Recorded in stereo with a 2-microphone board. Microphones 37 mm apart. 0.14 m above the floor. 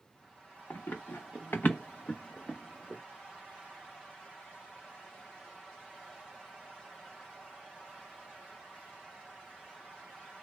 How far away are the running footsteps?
About 0.9 m.